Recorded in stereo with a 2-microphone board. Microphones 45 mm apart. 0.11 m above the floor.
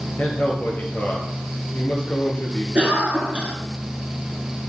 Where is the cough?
30° right (ahead or behind), 1.9 m.